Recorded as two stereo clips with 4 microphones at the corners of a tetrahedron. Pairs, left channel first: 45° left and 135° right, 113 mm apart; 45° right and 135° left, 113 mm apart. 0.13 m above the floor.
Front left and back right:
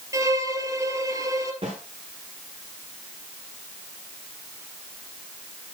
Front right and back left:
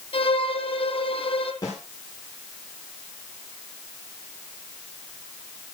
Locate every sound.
0.1 s a violin: 75° right, 1.4 m
1.6 s a snare drum: 100° right, 9 m